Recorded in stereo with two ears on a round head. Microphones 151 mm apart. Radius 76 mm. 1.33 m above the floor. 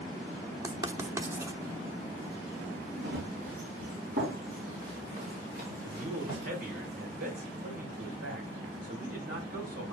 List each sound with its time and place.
0.6 s writing: 20° right (ahead or behind), 1.0 m
3.0 s running footsteps: 60° right (ahead or behind), 4 m; by 6.5 s 45° right (ahead or behind), 7 m
5.8 s a man speaking: 55° right (ahead or behind), 4.5 m